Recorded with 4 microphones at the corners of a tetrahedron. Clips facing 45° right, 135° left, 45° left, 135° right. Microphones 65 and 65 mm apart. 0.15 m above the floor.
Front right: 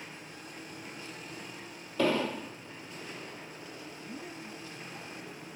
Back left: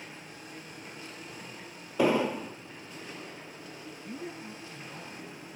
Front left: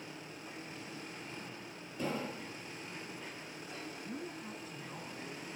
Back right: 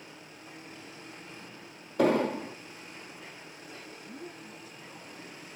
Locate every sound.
2.0 s an explosion: 155° right, 0.5 m
4.0 s a woman speaking: 85° left, 2 m